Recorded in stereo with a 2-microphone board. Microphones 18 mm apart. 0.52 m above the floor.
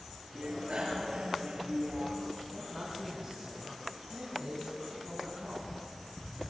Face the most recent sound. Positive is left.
turn(degrees=-35)  # may be behind; listen again after turning